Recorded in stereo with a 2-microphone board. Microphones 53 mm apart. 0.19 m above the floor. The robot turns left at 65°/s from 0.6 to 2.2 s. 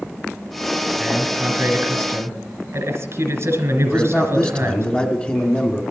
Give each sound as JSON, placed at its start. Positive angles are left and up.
{"t": 1.0, "sound": "a man speaking", "azimuth_deg": -5, "distance_m": 2.5}
{"t": 3.9, "sound": "a man speaking", "side_deg": 25, "distance_m": 1.4}